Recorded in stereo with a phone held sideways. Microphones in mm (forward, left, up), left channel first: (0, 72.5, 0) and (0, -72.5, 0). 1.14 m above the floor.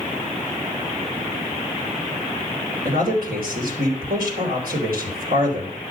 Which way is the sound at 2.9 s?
90° right.